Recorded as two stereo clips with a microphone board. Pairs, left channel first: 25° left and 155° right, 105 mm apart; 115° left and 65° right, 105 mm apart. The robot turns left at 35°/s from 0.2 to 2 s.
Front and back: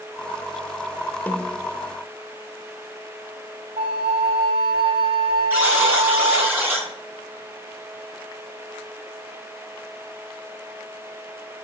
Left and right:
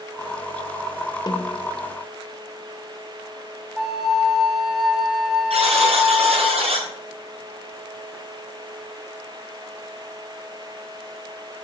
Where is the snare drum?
90° left, 0.9 m; by 1.7 s 75° left, 0.9 m.